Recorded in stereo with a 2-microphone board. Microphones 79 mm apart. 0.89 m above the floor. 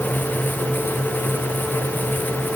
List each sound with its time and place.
Only background noise.